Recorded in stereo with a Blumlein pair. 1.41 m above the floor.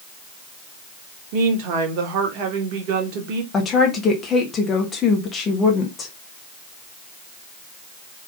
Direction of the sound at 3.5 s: 20° left.